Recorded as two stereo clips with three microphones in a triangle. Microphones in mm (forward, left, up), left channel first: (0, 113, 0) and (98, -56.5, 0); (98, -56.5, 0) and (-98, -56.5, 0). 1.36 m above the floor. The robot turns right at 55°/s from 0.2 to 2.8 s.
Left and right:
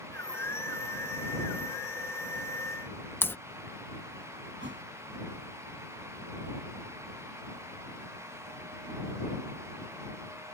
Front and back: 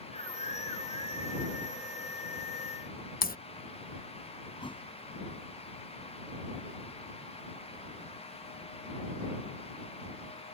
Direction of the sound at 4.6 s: 65° right.